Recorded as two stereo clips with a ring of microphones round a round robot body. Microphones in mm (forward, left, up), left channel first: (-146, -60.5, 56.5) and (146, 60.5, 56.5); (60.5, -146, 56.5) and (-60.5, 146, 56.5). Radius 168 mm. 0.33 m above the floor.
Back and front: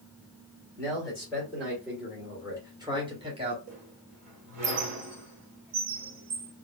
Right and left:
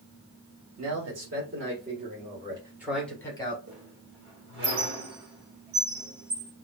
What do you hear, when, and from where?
0.8 s a man speaking: 115° left, 1.8 m; by 3.6 s 20° right, 1.3 m
3.7 s a squeak: 65° left, 1.4 m